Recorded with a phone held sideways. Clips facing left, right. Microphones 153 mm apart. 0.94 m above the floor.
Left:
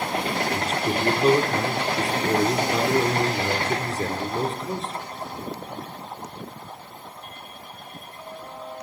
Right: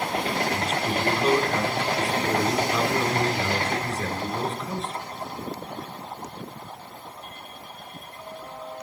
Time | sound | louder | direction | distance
0.5 | a man speaking | left 1 dB | 35° left (ahead or behind) | 2.5 m